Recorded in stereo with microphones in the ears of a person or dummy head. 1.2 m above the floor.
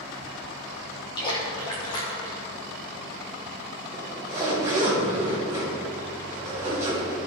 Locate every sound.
1.2 s a splash: 25° left (ahead or behind), 2.0 m
3.9 s a zipper: 15° right (ahead or behind), 2.5 m